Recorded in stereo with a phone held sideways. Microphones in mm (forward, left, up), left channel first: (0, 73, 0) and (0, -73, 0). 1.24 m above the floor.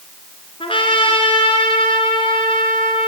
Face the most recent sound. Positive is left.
turn(degrees=35)  # may be behind; listen again after turning